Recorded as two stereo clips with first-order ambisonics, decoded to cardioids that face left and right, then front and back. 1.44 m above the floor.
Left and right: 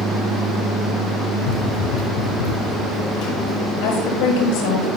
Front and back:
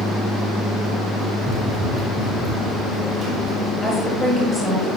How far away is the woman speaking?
About 7 m.